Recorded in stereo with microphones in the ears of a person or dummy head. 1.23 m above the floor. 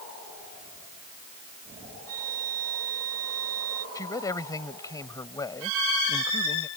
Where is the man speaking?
20° left (ahead or behind).